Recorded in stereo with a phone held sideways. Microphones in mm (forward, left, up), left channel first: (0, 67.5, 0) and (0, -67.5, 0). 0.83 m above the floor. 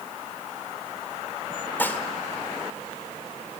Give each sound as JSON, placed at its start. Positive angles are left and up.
{"t": 1.8, "sound": "dishes clattering", "side_deg": 15, "distance_m": 1.6}